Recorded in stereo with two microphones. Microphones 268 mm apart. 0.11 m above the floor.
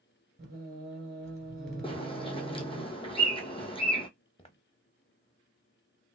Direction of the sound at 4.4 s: 20° left (ahead or behind).